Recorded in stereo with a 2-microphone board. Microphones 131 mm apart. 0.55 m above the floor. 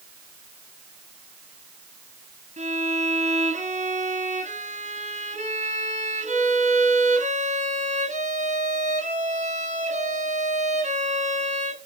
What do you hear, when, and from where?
2.6 s a violin: 60° right (ahead or behind), 4.5 m